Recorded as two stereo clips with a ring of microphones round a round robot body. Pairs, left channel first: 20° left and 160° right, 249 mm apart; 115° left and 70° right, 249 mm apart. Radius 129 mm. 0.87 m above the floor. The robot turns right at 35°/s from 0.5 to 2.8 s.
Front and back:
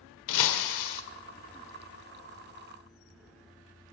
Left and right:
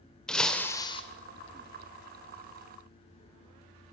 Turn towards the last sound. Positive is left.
turn(degrees=105)